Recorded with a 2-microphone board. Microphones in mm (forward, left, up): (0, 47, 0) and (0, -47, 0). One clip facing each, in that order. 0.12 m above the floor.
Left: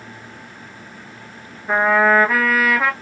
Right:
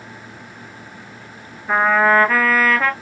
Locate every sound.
1.7 s a trumpet: 5° left (ahead or behind), 0.8 m